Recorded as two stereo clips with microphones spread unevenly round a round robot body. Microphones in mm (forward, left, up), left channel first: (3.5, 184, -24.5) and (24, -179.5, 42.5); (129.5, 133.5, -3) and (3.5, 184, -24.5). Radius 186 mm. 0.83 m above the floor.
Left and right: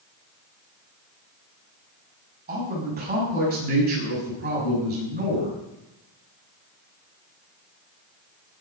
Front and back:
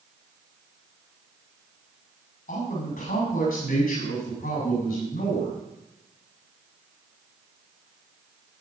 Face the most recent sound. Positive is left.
turn(degrees=-20)